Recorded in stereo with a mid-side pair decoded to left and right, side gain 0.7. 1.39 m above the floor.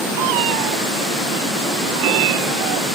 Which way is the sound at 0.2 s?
70° right.